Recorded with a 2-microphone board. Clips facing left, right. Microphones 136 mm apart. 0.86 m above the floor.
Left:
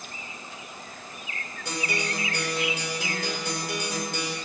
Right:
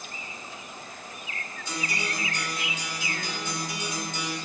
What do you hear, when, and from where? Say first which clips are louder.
1.6 s a guitar: left 3 dB; 75° left (ahead or behind), 4 m